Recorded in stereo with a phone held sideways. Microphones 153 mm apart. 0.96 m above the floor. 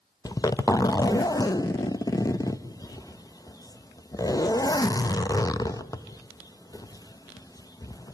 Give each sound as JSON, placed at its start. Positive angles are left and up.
{"t": 0.2, "sound": "a zipper", "side_deg": 25, "distance_m": 0.6}